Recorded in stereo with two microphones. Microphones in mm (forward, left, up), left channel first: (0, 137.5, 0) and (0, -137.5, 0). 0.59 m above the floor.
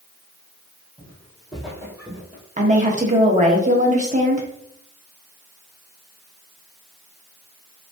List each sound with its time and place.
1.0 s footsteps: 10° left (ahead or behind), 1.7 m; by 2.4 s 35° right (ahead or behind), 0.9 m
2.6 s a woman speaking: 30° right (ahead or behind), 0.7 m